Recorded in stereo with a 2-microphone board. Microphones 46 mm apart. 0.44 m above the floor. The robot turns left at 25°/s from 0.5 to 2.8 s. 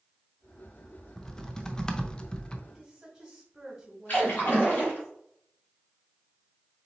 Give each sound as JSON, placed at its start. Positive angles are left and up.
{"t": 1.2, "sound": "typing on a keyboard", "side_deg": 10, "distance_m": 0.5}
{"t": 2.7, "sound": "a woman speaking", "side_deg": 0, "distance_m": 1.9}
{"t": 4.1, "sound": "a splash", "side_deg": 45, "distance_m": 2.0}